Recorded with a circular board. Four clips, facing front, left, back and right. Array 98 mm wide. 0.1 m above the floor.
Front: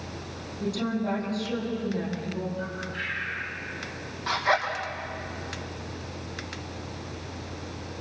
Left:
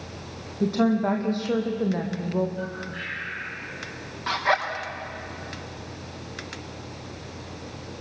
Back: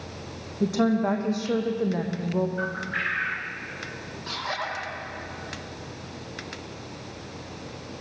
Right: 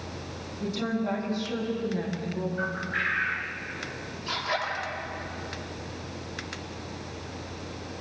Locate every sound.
0.6 s a woman speaking: 130° left, 5.5 m
2.6 s a bird: 145° right, 4.5 m
4.3 s a zipper: 60° left, 7.5 m